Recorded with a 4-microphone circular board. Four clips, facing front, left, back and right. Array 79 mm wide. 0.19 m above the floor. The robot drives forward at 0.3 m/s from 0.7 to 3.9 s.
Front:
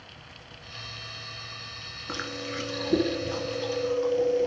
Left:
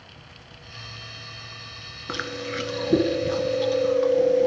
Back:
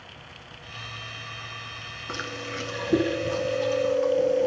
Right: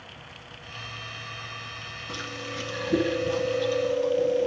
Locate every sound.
2.1 s chewing: 90° left, 2.5 m; by 4.5 s 100° left, 3 m